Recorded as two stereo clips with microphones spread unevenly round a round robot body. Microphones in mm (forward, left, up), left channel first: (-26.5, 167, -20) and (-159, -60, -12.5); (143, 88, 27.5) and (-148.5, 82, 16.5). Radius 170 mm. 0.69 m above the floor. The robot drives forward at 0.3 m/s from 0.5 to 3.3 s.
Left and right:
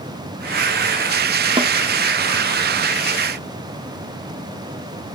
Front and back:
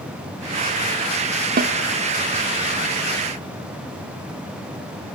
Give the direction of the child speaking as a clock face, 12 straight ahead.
I don't hear a child speaking.